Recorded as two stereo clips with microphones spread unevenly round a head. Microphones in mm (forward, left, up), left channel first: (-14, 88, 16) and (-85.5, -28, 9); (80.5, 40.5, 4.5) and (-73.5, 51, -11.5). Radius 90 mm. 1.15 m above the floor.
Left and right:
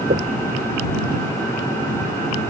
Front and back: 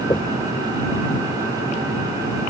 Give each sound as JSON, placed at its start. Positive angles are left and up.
{"t": 0.1, "sound": "knocking", "azimuth_deg": -75}